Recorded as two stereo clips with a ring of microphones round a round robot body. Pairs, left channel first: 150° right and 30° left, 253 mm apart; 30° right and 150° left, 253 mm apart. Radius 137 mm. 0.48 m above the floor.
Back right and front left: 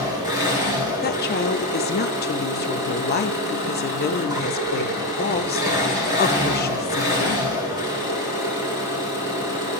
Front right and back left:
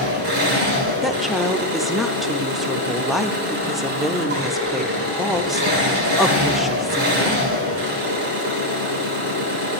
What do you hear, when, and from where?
0.0 s an engine running: 105° left, 7 m
1.0 s a woman speaking: 120° right, 1.0 m